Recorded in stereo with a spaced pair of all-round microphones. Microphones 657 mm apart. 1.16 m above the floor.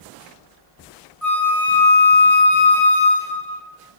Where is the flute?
30° left (ahead or behind), 1.0 m.